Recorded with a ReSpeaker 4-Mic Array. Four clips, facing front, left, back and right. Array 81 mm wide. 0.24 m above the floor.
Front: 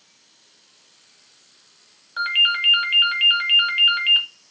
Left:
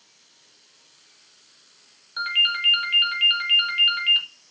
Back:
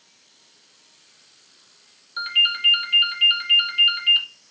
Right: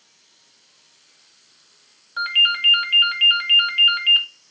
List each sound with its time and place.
2.2 s a ringtone: 25° right, 1.2 m